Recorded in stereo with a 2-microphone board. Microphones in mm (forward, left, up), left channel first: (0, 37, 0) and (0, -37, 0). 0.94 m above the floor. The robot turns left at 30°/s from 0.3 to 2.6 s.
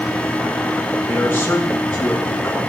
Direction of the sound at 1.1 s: 35° left.